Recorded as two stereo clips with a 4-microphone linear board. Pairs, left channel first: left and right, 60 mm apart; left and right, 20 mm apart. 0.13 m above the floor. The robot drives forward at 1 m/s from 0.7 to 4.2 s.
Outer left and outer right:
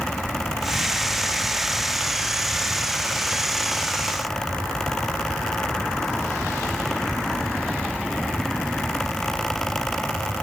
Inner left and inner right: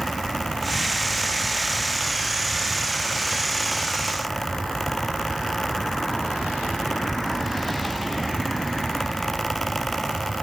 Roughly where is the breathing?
I don't hear breathing.